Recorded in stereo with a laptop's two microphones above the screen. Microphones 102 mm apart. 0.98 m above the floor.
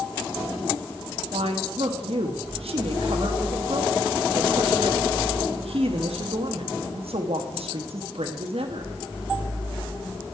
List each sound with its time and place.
1.3 s a woman speaking: 80° right, 1.1 m